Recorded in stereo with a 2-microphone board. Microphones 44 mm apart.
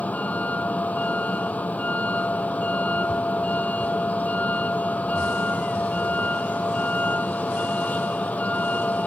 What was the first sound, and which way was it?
A vehicle, 35° left (ahead or behind).